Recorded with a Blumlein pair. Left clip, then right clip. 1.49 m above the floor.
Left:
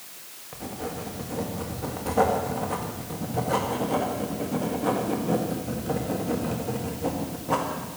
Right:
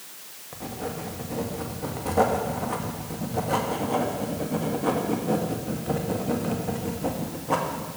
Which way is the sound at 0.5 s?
Straight ahead.